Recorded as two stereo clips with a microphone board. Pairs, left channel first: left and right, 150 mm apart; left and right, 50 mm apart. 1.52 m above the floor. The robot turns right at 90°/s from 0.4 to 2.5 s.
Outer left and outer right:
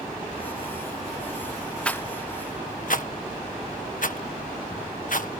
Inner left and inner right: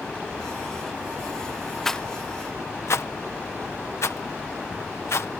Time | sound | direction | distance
1.9 | a rattle | 5° left (ahead or behind) | ?